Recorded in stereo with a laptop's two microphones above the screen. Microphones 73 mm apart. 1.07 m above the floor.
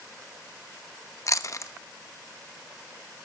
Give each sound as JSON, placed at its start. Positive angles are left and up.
{"t": 1.3, "sound": "chewing", "side_deg": 45, "distance_m": 0.7}